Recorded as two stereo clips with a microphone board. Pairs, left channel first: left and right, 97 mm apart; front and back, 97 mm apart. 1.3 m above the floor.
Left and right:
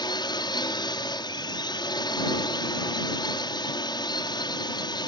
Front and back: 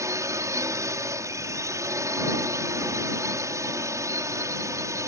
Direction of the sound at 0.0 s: 125° left.